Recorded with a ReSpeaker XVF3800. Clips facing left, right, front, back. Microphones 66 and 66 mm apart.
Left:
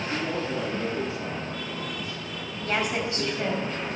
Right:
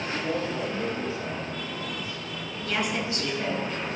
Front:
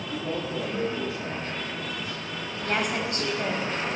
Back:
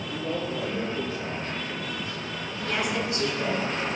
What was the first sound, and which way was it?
A man speaking, 75° left.